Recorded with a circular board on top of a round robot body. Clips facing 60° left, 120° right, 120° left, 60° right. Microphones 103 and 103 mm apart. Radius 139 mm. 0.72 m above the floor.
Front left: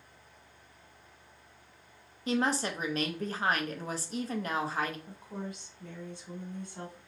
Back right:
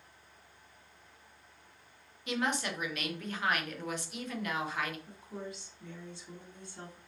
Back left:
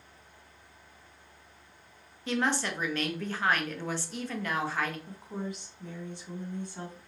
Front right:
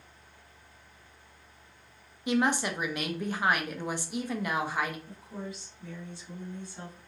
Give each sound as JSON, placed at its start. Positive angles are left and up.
{"t": 2.3, "sound": "a woman speaking", "azimuth_deg": 15, "distance_m": 0.8}
{"t": 5.1, "sound": "a woman speaking", "azimuth_deg": 90, "distance_m": 1.8}